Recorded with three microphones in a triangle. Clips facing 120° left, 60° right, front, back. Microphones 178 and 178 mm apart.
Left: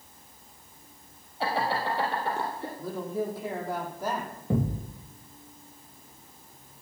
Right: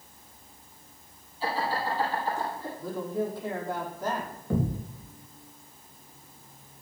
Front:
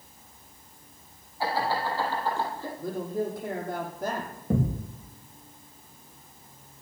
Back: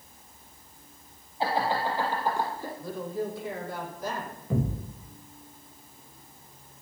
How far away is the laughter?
About 4 m.